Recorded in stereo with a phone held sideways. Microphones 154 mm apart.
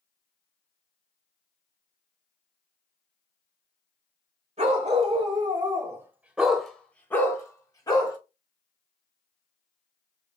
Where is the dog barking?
45° right (ahead or behind), 1.2 m; by 8.2 s 30° left (ahead or behind), 1.4 m.